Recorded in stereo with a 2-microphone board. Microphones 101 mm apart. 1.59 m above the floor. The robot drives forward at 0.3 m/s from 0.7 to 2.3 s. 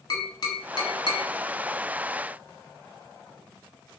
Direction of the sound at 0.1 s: 45° left (ahead or behind).